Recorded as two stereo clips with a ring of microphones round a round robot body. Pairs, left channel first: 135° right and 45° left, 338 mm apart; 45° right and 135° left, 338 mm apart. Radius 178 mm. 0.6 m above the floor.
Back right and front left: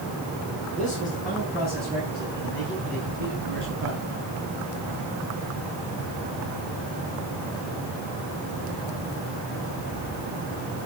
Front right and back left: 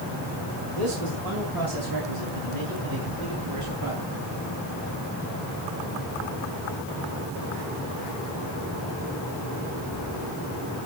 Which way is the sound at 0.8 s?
140° left.